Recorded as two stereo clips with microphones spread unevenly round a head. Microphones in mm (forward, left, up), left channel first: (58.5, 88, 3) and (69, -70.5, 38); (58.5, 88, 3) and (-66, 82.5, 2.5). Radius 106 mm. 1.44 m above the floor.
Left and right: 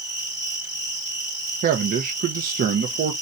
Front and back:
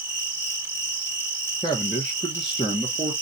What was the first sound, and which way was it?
An insect, 30° left.